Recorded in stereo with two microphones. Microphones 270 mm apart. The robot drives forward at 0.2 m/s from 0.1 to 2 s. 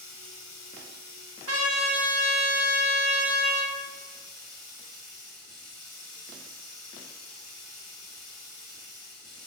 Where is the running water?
85° left, 0.8 m; by 9.5 s 60° left (ahead or behind), 0.9 m.